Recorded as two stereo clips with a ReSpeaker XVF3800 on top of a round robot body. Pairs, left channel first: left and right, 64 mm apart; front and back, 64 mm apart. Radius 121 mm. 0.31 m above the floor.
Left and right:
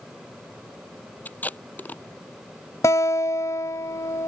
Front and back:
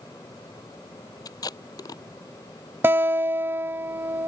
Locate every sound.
1.2 s tape being pulled: 25° left
2.8 s a guitar: 125° left